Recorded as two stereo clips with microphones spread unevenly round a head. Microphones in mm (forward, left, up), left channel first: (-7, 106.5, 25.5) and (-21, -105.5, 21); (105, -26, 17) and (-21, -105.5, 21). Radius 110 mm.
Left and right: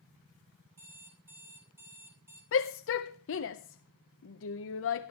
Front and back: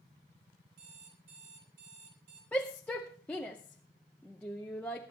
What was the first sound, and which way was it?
An alarm clock, 175° right.